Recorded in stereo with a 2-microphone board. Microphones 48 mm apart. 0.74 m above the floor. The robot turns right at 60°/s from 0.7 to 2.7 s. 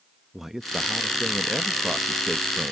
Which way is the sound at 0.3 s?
5° right (ahead or behind).